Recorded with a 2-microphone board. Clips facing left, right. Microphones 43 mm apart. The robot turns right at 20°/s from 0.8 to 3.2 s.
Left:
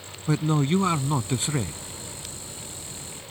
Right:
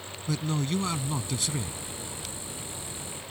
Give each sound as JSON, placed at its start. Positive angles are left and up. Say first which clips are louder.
{"t": 0.3, "sound": "a man speaking", "louder": "left 7 dB", "side_deg": 30}